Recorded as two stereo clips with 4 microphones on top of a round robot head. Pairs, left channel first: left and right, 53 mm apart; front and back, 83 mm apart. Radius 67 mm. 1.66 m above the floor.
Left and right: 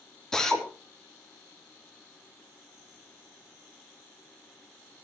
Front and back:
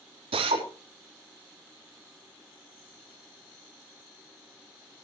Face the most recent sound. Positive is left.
turn(degrees=170)